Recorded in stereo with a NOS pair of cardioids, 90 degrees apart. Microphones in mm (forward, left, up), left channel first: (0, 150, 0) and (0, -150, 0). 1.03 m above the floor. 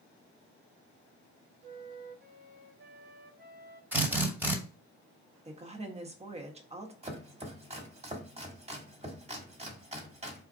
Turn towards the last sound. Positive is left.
turn(degrees=-20)